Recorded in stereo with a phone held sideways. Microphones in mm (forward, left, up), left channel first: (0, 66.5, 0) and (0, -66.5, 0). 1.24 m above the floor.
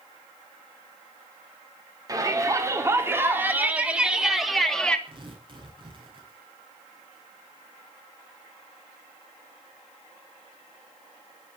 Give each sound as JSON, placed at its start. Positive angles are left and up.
{"t": 2.1, "sound": "a shout", "side_deg": -25, "distance_m": 4.5}
{"t": 5.1, "sound": "tearing paper", "side_deg": -40, "distance_m": 7.5}